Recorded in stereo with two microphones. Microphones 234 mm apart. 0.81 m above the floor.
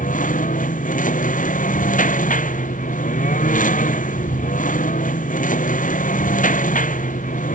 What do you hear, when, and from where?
0.0 s a lawn mower: 35° left (ahead or behind)